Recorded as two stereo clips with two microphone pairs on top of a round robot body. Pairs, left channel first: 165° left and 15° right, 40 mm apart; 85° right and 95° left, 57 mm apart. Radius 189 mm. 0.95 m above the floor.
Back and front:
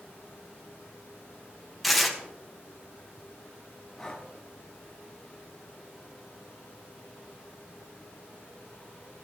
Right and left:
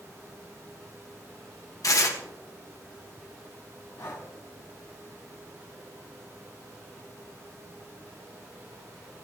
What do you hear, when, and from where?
1.8 s tearing paper: 105° right, 1.6 m
4.0 s breathing: 115° right, 1.1 m